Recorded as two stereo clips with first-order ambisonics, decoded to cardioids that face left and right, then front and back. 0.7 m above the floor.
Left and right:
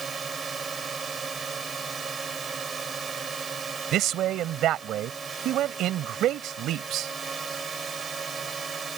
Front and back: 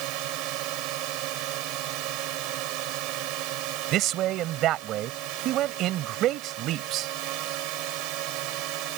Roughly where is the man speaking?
Behind right.